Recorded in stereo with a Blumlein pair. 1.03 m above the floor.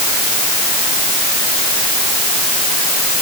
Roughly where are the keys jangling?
I don't hear keys jangling.